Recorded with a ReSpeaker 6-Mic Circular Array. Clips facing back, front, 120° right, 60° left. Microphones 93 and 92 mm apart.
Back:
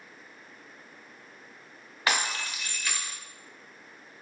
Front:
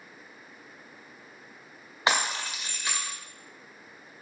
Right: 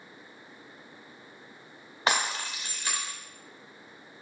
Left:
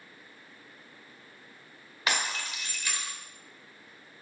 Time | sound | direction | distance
2.1 | breaking glass | 70° right | 2 m